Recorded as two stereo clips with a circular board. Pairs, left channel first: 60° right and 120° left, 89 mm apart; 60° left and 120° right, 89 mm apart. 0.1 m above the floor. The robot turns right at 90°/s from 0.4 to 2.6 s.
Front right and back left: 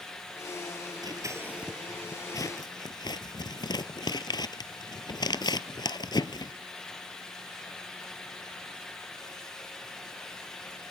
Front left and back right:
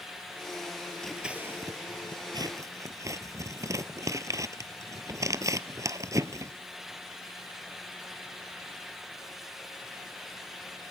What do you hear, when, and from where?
1.0 s scissors: 145° left, 0.9 m; by 6.5 s 75° right, 0.9 m